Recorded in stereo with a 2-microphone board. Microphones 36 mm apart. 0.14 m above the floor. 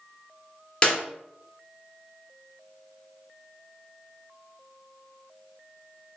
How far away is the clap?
About 0.9 m.